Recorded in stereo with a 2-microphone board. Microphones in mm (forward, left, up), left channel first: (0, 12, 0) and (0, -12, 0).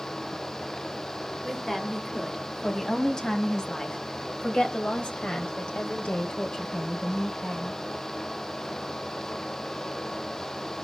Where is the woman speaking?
15° left (ahead or behind), 3 m; by 7.8 s 55° left (ahead or behind), 2.5 m.